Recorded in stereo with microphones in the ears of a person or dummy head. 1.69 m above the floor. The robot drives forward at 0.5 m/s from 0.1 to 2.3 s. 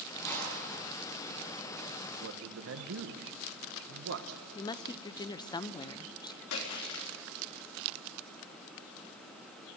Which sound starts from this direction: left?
A splash, at 6.5 s.